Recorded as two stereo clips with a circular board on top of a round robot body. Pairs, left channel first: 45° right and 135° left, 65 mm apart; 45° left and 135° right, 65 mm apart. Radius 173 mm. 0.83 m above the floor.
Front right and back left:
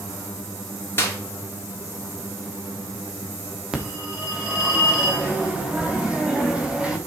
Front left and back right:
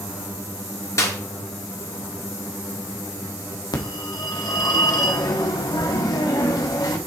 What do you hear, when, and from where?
1.0 s a clap: 5° left, 3 m
3.7 s a phone ringing: 60° left, 1.5 m